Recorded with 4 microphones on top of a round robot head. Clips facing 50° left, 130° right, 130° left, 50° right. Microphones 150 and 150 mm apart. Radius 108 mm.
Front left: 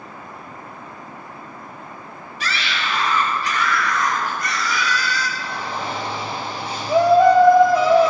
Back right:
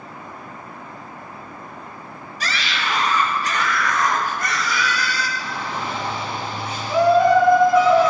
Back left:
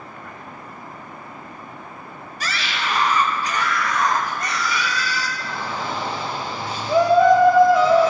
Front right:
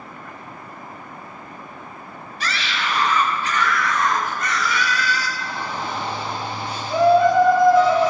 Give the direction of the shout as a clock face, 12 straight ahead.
8 o'clock.